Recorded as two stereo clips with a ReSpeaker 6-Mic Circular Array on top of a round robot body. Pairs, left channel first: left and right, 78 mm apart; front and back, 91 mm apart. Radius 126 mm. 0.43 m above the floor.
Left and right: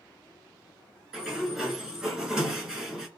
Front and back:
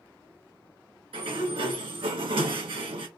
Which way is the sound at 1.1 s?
170° right.